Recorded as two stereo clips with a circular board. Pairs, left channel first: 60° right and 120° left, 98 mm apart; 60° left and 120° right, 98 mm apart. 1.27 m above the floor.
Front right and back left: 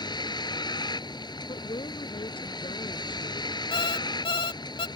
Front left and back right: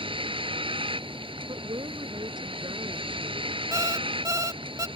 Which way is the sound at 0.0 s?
100° right.